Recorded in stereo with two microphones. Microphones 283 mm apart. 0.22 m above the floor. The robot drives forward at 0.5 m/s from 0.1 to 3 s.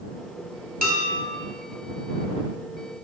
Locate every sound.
0.8 s dishes clattering: 30° right (ahead or behind), 0.7 m; by 1.3 s 25° right (ahead or behind), 0.8 m